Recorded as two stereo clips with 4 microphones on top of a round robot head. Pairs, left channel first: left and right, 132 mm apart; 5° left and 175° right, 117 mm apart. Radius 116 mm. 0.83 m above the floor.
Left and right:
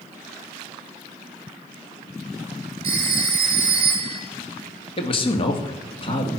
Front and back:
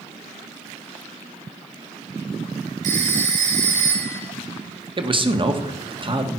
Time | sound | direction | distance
2.8 | a phone ringing | 150° right | 3 m
5.0 | a man speaking | 140° left | 1.8 m